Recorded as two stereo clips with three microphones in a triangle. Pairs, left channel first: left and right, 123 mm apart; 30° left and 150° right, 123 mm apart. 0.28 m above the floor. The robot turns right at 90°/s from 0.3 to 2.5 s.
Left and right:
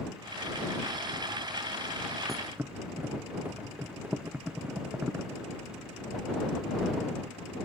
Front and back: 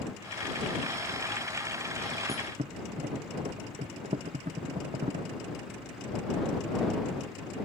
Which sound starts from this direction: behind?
A thud, at 2.3 s.